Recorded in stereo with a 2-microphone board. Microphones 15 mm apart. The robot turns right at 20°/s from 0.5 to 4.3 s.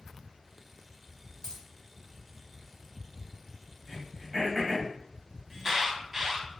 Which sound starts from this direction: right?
An alarm, at 5.5 s.